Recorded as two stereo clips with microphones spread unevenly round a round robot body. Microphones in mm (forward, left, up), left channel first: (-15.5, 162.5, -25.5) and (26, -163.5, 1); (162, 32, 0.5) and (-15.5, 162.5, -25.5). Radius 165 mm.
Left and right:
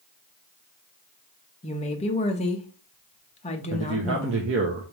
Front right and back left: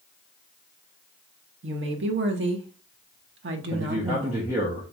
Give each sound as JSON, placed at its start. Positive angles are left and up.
{"t": 1.6, "sound": "a woman speaking", "azimuth_deg": 165, "distance_m": 0.6}
{"t": 3.7, "sound": "a man speaking", "azimuth_deg": -135, "distance_m": 0.6}